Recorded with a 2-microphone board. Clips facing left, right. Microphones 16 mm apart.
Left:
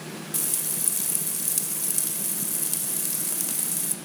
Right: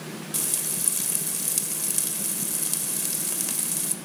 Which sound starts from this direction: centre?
Frying, at 0.3 s.